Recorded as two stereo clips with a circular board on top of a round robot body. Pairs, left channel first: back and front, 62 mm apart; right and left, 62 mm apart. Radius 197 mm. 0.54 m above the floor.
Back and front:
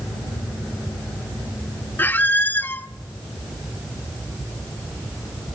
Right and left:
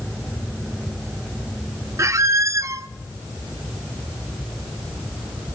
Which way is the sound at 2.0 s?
125° left.